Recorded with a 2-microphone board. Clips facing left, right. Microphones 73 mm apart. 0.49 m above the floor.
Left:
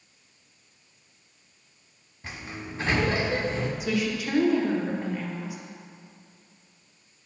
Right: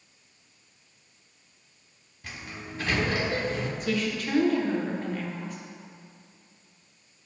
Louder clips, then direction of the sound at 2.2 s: Left 2 dB; 25° left (ahead or behind).